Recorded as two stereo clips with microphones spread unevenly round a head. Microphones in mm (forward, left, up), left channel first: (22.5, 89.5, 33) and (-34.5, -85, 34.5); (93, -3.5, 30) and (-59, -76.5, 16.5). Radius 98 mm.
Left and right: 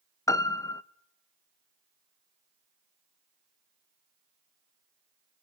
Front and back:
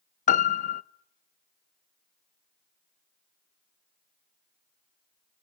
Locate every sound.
0.3 s a piano: straight ahead, 0.7 m